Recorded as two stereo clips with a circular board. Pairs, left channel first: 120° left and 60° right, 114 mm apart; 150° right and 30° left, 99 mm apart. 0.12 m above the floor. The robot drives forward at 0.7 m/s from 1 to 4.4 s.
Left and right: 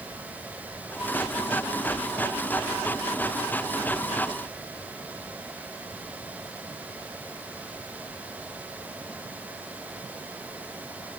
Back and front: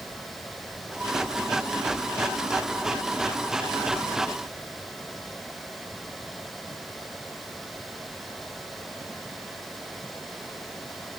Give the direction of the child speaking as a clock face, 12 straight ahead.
I don't hear a child speaking.